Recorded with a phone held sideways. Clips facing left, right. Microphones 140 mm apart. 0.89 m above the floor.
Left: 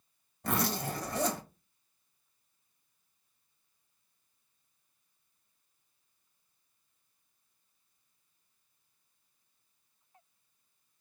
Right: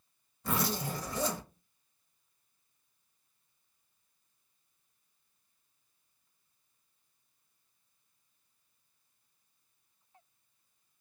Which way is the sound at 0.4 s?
65° left (ahead or behind).